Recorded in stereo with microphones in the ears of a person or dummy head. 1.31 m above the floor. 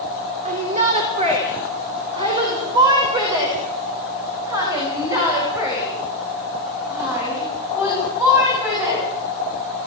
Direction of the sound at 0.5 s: 35° right (ahead or behind).